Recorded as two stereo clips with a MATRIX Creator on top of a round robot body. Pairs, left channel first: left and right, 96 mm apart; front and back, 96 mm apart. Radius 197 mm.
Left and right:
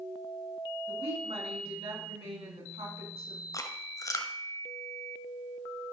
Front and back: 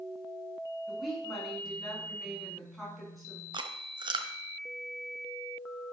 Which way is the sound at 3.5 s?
145° left.